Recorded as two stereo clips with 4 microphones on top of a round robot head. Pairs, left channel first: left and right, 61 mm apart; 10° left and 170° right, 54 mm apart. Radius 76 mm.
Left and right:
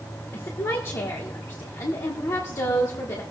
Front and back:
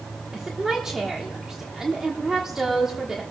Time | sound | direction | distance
0.3 | a woman speaking | 105° left | 1.2 m